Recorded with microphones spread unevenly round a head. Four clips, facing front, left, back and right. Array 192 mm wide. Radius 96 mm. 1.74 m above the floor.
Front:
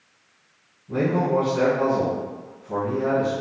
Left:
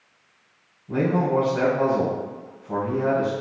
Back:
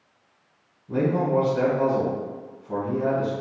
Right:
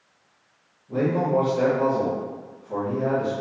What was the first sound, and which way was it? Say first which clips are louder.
A man speaking: left 1 dB, front 1 dB; 100° left.